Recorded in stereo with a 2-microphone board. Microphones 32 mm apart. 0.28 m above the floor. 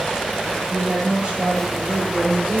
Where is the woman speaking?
35° right (ahead or behind), 6 m.